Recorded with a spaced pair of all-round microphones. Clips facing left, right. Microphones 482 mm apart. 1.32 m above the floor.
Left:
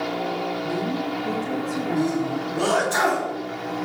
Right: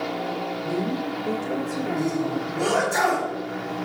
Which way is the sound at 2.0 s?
85° left.